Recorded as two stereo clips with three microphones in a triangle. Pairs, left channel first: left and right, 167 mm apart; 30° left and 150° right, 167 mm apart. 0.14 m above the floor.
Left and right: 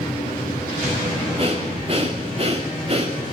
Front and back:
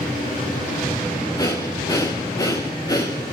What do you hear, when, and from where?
1.4 s breathing: 40° right, 5 m